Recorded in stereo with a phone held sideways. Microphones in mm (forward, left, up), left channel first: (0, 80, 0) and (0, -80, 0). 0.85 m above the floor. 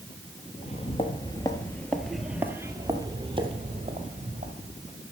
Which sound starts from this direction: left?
Footsteps, at 0.6 s.